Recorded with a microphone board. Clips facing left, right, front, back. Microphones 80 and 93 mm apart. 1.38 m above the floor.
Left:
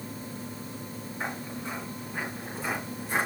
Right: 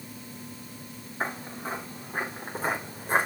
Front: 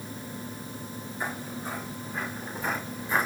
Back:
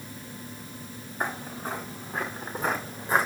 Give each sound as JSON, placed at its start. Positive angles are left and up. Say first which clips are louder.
{"t": 1.2, "sound": "footsteps", "louder": "right 3 dB, back 3 dB", "azimuth_deg": -140, "distance_m": 5.0}